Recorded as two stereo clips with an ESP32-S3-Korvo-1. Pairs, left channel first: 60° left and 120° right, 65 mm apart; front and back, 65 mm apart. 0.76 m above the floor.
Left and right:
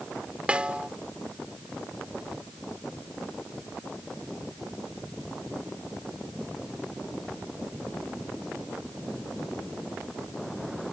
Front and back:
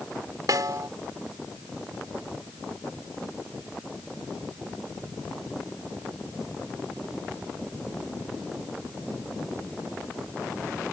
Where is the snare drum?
170° left.